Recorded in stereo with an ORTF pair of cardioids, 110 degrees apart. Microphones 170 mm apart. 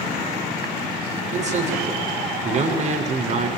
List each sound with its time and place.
1.3 s a man speaking: 45° right, 7 m